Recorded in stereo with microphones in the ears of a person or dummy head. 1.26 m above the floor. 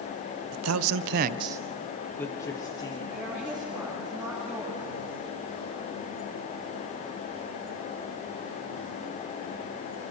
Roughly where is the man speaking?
Right.